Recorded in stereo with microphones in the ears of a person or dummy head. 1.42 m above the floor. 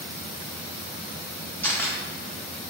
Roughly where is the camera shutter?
Centre.